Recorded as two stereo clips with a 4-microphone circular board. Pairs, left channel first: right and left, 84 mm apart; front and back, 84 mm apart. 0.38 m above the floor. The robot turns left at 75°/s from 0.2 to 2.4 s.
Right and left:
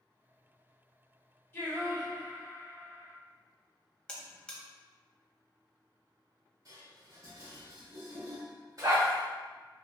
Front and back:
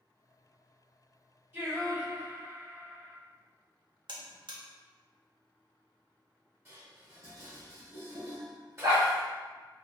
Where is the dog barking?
145° left, 1.3 m.